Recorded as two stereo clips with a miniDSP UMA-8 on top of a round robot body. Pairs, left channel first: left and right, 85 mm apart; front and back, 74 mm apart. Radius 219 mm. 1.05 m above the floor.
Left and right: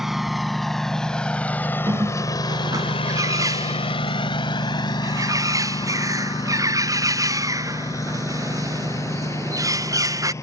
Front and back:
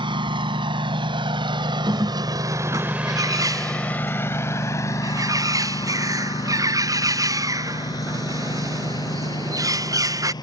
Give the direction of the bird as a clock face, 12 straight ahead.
5 o'clock.